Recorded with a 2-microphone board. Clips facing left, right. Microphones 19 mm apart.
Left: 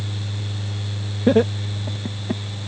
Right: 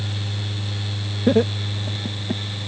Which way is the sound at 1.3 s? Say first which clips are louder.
Left 1 dB; 10° left (ahead or behind).